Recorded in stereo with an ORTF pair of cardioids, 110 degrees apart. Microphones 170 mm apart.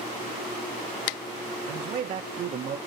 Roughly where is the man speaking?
Ahead right.